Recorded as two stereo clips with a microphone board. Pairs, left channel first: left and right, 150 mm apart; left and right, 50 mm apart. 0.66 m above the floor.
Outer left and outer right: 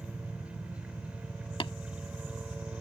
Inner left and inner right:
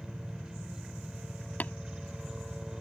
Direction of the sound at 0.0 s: 10° right (ahead or behind).